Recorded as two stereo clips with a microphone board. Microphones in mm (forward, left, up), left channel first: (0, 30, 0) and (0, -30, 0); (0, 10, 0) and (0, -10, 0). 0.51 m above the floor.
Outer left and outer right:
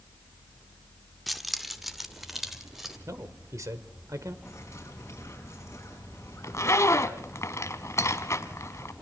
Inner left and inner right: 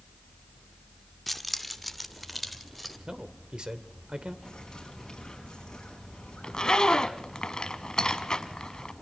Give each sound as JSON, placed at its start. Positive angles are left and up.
{"t": 1.3, "sound": "keys jangling", "side_deg": 0, "distance_m": 0.9}
{"t": 3.1, "sound": "a man speaking", "side_deg": -60, "distance_m": 1.7}
{"t": 4.5, "sound": "a bird", "side_deg": 45, "distance_m": 5.5}
{"t": 6.4, "sound": "a zipper", "side_deg": 50, "distance_m": 1.1}